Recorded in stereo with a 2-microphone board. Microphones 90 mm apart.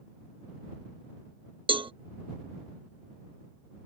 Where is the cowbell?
70° right (ahead or behind).